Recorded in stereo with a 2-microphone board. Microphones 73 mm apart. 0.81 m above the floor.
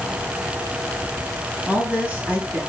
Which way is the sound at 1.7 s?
20° right (ahead or behind).